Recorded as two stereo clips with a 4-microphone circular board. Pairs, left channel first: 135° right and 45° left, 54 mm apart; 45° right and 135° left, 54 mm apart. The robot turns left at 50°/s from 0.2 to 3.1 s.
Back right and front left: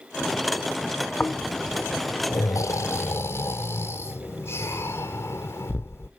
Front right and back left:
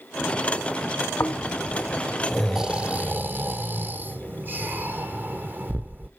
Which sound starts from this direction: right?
Snoring, at 1.2 s.